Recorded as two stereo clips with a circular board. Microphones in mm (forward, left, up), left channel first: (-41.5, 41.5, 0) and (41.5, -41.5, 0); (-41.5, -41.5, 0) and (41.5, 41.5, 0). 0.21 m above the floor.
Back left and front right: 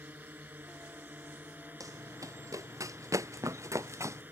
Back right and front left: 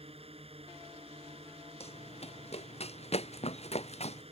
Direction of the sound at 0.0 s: 25° left.